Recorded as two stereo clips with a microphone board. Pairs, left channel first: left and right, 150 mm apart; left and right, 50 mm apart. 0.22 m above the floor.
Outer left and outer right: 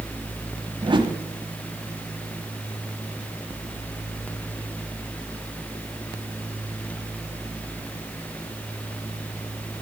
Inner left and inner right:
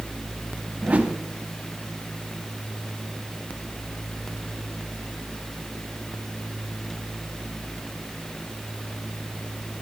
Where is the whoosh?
30° right (ahead or behind), 0.8 m.